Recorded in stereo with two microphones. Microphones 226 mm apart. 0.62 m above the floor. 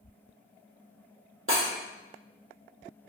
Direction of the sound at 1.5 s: 65° right (ahead or behind).